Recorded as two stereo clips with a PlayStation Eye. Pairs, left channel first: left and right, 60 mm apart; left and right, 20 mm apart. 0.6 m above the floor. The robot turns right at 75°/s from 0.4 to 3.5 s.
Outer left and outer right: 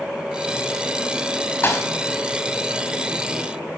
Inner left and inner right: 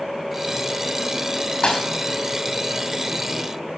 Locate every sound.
1.6 s a thud: 30° left (ahead or behind), 3 m; by 1.9 s 50° left (ahead or behind), 3 m